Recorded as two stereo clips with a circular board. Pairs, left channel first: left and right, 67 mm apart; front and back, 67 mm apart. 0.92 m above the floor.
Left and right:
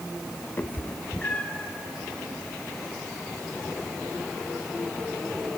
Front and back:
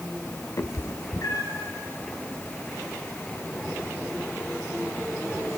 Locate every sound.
0.6 s a cat meowing: 35° left, 1.1 m; by 1.7 s 20° left, 1.7 m